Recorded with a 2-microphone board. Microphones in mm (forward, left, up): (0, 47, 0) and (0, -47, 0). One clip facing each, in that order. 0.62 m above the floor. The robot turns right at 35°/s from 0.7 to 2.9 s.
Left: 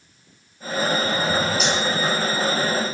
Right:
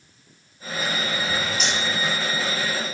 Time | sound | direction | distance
1.6 | cutlery clinking | centre (ahead or behind) | 2.5 m